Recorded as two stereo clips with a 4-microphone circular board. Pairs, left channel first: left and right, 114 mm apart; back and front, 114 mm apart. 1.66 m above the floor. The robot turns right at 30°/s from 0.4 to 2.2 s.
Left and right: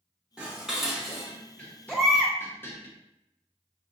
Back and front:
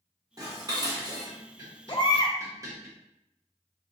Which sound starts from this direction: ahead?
Dishes clattering, at 0.4 s.